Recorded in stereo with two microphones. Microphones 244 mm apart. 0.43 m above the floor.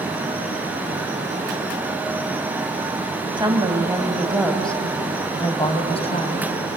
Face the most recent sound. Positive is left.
turn(degrees=30)  # may be behind; listen again after turning